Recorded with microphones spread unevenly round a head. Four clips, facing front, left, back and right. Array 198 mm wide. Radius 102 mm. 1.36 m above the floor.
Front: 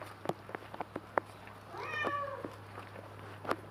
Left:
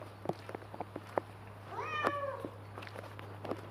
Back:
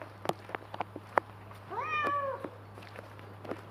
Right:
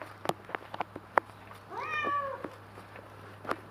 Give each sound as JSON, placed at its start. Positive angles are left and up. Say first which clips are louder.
{"t": 1.7, "sound": "a cat meowing", "louder": "right 2 dB, back 5 dB", "azimuth_deg": -170, "distance_m": 2.0}